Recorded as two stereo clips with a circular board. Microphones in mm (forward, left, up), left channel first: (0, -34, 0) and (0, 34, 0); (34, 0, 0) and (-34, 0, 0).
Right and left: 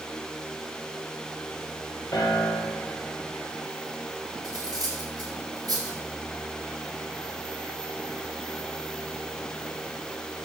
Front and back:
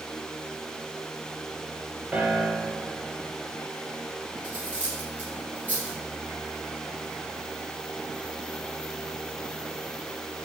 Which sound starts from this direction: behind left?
Cutlery clinking, at 4.4 s.